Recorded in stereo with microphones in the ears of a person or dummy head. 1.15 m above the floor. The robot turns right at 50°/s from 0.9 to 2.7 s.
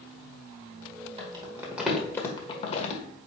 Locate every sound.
1.2 s crumpling: 30° right (ahead or behind), 1.4 m; by 3.0 s 35° left (ahead or behind), 1.4 m